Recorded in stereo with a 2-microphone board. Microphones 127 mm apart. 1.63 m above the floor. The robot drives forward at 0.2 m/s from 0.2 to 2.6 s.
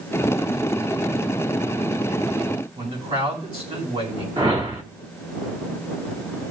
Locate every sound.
2.8 s a man speaking: 50° right (ahead or behind), 8.5 m
4.4 s a whoosh: 45° right (ahead or behind), 1.9 m